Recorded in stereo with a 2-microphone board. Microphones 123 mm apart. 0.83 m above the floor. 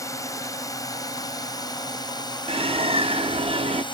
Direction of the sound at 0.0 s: 25° left (ahead or behind).